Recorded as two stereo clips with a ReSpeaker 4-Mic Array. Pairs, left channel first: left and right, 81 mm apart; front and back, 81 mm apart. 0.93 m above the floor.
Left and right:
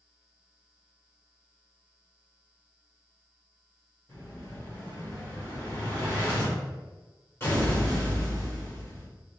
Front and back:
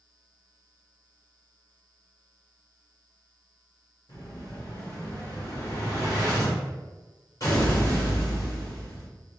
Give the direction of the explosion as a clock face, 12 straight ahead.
11 o'clock.